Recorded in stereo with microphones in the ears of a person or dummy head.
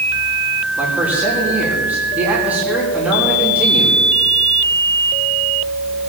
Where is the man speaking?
5° right (ahead or behind), 3.5 m.